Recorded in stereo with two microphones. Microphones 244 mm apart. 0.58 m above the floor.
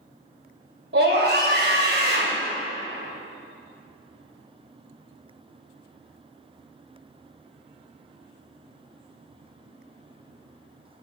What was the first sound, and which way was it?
A scream, 60° right (ahead or behind).